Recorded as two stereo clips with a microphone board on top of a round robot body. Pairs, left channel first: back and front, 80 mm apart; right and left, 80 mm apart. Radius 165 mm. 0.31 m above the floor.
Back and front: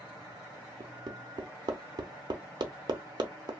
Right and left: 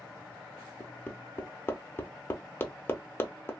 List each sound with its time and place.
0.8 s hammering: 30° right, 0.7 m